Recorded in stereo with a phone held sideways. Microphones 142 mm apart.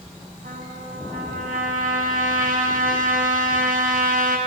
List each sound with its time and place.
0.4 s a trumpet: 80° right, 4.5 m